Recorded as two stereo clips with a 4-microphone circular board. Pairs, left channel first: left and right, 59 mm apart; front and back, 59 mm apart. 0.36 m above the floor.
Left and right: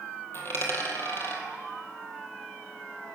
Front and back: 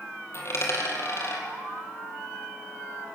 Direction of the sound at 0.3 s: 40° left.